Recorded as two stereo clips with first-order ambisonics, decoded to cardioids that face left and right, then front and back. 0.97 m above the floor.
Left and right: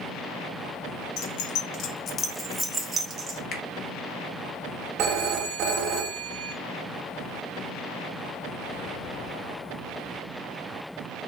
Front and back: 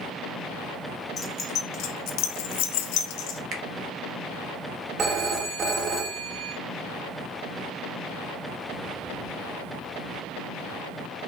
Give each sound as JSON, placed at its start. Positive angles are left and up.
{"t": 1.2, "sound": "keys jangling", "azimuth_deg": 70, "distance_m": 0.9}
{"t": 3.5, "sound": "a finger snap", "azimuth_deg": 140, "distance_m": 1.2}
{"t": 5.0, "sound": "a phone ringing", "azimuth_deg": -125, "distance_m": 0.9}